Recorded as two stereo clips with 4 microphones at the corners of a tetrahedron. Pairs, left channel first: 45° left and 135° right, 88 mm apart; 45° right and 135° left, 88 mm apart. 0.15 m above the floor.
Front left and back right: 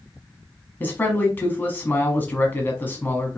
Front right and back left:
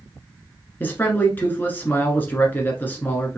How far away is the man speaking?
About 1.2 m.